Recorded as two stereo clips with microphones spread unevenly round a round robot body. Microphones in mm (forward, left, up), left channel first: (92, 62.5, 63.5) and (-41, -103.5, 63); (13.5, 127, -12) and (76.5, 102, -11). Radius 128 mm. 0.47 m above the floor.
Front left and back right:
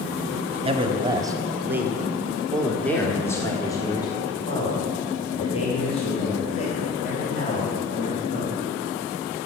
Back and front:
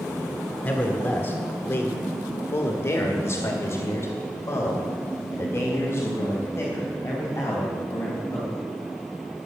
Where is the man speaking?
160° right, 1.4 m; by 8.5 s 105° left, 4 m.